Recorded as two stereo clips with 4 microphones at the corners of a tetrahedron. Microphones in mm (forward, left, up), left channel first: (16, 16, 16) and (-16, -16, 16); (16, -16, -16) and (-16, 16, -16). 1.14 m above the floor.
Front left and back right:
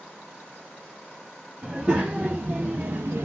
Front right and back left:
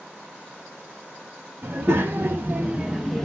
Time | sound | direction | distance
1.6 | a child speaking | 160° left | 0.8 m